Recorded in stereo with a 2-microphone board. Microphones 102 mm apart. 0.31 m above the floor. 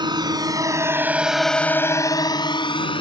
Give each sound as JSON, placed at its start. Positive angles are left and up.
{"t": 0.0, "sound": "a drone", "side_deg": -50}